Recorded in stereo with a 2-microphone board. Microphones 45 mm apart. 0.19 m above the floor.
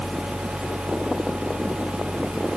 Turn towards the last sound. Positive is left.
No sound to turn to.